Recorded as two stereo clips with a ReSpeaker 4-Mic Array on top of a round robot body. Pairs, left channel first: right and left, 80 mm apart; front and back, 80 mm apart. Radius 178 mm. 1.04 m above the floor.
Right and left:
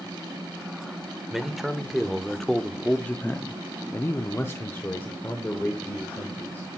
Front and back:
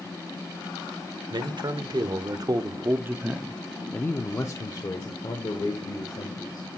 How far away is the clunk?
No clunk in this recording.